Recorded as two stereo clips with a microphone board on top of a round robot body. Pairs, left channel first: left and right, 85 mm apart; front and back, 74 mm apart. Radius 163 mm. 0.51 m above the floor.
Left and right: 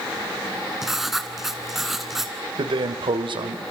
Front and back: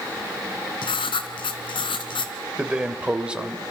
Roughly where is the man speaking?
Right.